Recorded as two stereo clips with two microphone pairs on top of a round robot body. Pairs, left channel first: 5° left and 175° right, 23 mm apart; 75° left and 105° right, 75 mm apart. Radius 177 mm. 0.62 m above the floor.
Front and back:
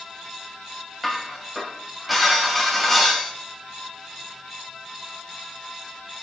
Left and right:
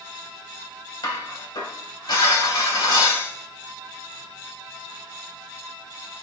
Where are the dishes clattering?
105° left, 2.5 m.